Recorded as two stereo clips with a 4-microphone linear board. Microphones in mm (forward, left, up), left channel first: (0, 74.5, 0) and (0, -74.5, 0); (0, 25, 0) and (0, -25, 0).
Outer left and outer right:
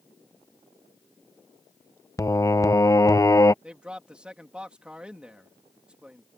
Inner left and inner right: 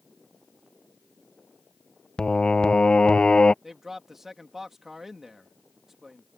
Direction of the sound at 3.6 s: 5° right (ahead or behind).